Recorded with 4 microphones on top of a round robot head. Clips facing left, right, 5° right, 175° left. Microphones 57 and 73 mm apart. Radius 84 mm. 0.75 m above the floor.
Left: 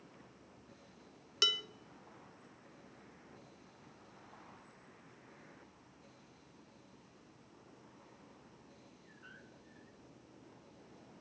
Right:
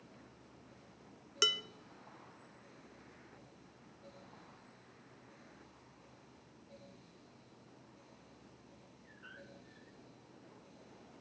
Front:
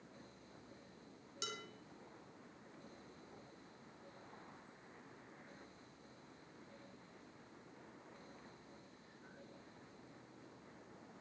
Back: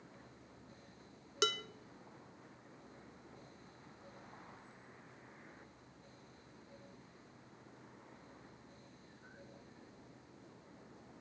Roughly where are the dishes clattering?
Behind.